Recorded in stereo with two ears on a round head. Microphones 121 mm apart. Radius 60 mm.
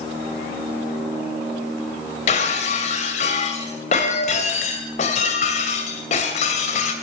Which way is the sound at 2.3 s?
55° left (ahead or behind).